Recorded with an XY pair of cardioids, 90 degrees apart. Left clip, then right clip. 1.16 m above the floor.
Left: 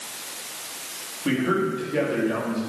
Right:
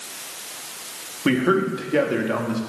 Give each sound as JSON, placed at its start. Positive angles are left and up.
{"t": 1.2, "sound": "a man speaking", "azimuth_deg": -65, "distance_m": 2.5}